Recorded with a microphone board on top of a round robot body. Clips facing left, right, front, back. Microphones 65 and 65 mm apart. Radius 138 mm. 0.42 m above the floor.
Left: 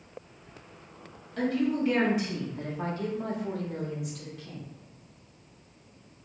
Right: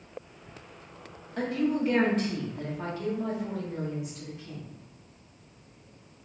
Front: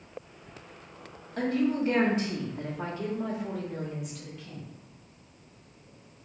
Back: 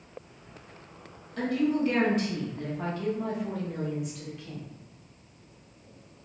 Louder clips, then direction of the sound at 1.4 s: Even, back 1 dB; 25° right.